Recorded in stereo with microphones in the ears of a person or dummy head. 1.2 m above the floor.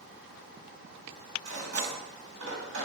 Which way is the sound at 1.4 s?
75° right (ahead or behind).